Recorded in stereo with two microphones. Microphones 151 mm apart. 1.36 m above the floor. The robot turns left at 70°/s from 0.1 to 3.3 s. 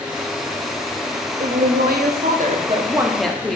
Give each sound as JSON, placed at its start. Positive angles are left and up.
{"t": 1.4, "sound": "a woman speaking", "azimuth_deg": -50, "distance_m": 0.5}